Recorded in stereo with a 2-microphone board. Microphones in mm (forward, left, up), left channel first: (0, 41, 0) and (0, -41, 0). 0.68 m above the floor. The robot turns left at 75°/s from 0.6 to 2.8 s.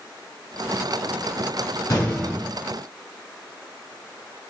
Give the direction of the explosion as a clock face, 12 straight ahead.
10 o'clock.